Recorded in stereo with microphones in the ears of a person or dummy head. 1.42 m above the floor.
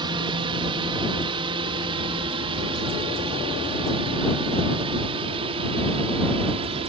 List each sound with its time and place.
0.0 s a drone: 25° right (ahead or behind); by 6.9 s 30° right (ahead or behind)